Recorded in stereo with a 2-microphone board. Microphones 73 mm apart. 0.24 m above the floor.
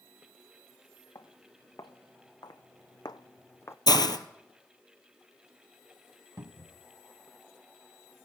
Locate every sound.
1.1 s footsteps: 60° left (ahead or behind), 1.8 m; by 3.8 s 35° left (ahead or behind), 0.7 m
3.9 s a hiss: 70° left (ahead or behind), 1.1 m
6.4 s a cupboard door: 50° right (ahead or behind), 0.8 m